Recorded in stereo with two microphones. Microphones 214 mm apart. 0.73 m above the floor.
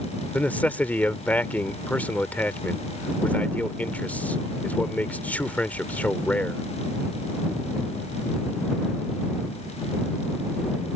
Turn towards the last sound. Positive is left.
turn(degrees=5)  # may be behind; listen again after turning